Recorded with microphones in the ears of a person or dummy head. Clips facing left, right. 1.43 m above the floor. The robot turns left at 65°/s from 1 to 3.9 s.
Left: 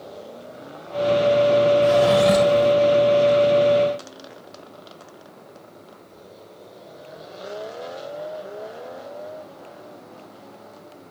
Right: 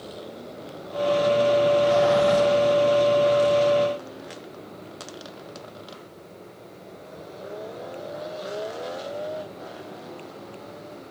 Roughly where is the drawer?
Left.